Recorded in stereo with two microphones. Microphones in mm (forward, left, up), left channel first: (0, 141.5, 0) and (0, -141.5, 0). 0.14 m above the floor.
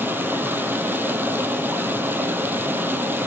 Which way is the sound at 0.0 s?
5° right (ahead or behind).